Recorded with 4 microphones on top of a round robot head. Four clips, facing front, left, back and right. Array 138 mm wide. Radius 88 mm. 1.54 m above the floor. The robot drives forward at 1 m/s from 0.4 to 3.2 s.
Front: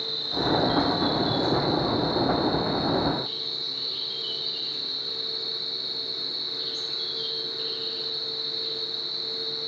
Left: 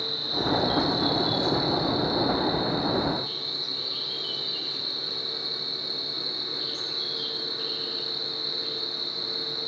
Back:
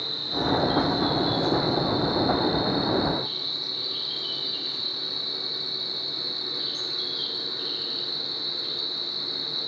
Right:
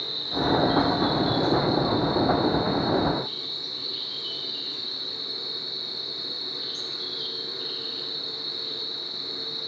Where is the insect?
80° left, 4 m; by 9.7 s 120° left, 4.5 m.